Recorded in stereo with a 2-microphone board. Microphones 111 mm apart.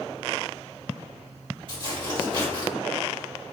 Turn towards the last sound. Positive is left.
turn(degrees=-45)  # may be behind; listen again after turning